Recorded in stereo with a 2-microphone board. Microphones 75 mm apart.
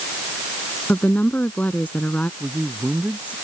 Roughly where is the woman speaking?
Left.